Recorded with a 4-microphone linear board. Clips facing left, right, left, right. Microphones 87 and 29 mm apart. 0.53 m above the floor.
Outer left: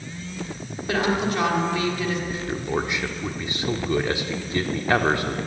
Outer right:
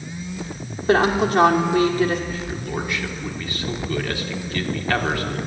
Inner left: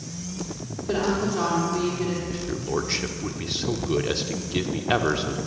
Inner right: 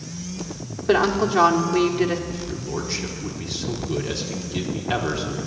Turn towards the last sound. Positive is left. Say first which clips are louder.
# outer left 2 dB, inner left 2 dB
turn(degrees=20)  # may be behind; listen again after turning